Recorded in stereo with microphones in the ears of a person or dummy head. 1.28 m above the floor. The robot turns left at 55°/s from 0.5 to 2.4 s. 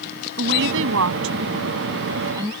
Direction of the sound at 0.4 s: 55° right (ahead or behind).